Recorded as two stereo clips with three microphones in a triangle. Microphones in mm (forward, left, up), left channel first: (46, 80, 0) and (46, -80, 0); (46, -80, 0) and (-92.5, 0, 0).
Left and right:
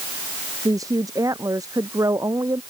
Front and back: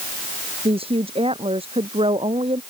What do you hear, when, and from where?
0.7 s a woman speaking: 160° right